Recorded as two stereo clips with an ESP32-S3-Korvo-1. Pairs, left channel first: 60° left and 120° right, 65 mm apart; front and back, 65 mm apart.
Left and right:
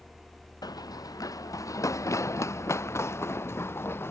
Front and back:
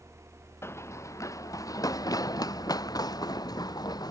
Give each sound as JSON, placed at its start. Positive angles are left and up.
{"t": 0.6, "sound": "running footsteps", "azimuth_deg": 50}